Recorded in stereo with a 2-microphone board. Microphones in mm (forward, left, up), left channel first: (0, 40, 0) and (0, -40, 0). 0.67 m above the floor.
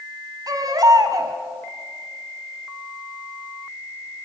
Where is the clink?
I don't hear a clink.